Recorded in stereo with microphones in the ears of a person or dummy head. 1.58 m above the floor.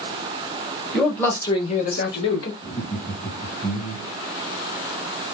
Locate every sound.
0.9 s a man speaking: 5° right (ahead or behind), 1.2 m; by 2.5 s 75° left (ahead or behind), 1.1 m
2.6 s laughter: 5° left (ahead or behind), 1.6 m